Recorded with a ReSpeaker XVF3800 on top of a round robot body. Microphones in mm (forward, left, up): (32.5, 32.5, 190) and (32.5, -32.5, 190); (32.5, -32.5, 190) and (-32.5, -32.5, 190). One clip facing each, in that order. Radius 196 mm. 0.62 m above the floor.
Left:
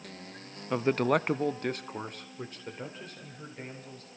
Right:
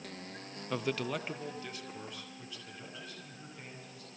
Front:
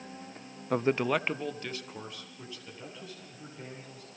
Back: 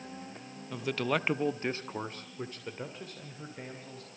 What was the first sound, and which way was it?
A man speaking, 20° left.